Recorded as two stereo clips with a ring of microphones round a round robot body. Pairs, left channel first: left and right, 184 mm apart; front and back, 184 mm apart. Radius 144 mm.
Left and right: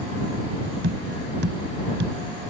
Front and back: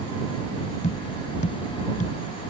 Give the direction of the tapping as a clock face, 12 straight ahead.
2 o'clock.